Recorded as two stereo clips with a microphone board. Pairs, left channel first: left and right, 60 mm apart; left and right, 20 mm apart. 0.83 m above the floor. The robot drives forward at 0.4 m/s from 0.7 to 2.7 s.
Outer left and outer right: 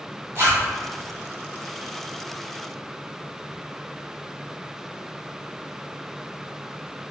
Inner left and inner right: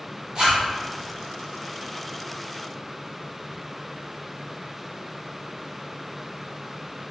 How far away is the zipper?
About 1.4 m.